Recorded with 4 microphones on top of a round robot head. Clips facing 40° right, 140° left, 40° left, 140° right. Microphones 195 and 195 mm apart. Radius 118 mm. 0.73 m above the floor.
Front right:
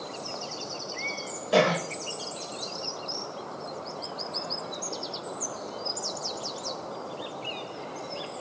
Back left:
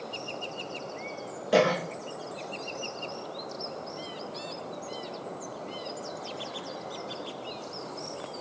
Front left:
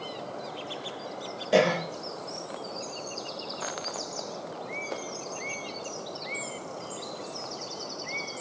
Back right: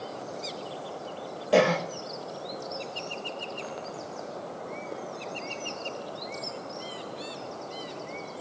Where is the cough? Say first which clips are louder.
Even, back right 1 dB; 105° left, 1.1 m.